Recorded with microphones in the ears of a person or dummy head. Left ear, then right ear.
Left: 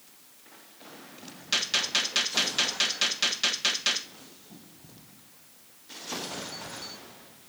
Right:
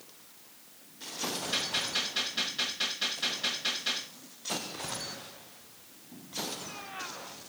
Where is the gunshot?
80° left, 1.5 m.